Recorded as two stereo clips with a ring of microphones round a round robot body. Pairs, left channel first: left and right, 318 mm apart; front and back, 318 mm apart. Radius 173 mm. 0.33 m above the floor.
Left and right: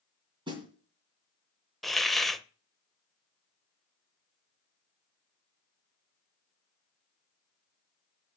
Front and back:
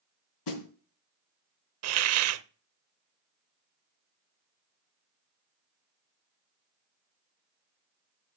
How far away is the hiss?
About 0.6 m.